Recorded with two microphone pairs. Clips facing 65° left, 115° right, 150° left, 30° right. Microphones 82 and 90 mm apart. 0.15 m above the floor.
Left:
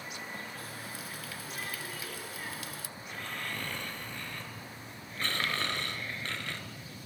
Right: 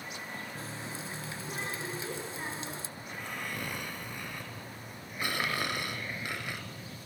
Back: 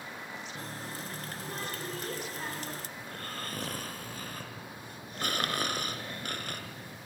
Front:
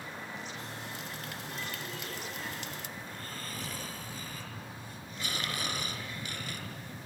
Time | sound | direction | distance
0.6 | a running tap | 170° right | 1.3 m
3.0 | snoring | 170° left | 3 m